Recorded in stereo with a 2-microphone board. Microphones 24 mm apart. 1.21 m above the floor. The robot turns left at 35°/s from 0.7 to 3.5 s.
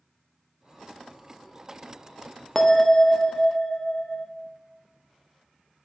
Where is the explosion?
No explosion in this recording.